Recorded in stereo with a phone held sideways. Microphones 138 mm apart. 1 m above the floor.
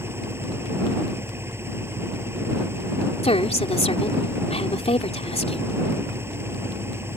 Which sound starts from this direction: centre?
An engine running, at 0.0 s.